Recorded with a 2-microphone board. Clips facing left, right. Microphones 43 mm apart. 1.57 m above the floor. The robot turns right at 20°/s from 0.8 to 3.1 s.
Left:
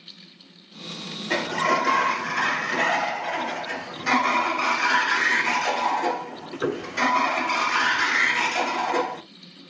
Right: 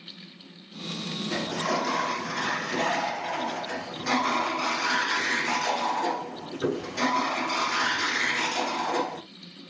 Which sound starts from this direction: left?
A sliding door, at 1.3 s.